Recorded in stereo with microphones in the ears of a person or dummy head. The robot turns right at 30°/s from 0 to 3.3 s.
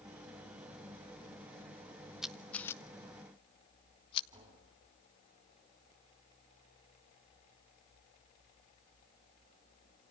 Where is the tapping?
25° right (ahead or behind), 9.5 m.